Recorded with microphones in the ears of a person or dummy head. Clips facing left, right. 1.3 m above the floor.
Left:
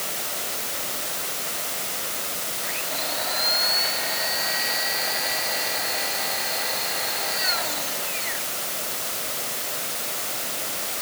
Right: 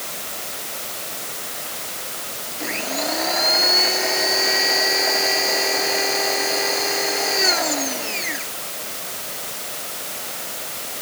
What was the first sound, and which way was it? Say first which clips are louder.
A blender: right 10 dB; 65° right (ahead or behind).